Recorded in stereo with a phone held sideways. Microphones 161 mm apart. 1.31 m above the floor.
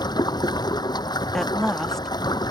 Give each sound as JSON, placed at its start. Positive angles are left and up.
{"t": 0.0, "sound": "running water", "side_deg": 25}
{"t": 1.3, "sound": "a woman speaking", "side_deg": 5}